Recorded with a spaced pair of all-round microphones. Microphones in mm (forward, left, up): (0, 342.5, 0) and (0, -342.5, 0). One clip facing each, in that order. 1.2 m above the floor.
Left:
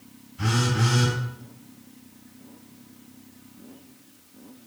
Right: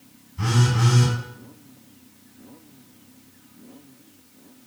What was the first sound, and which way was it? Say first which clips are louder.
A phone buzzing: right 2 dB; 75° right (ahead or behind).